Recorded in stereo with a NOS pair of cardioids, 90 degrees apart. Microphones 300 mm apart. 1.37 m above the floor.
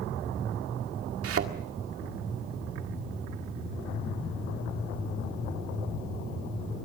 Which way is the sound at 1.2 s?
55° right.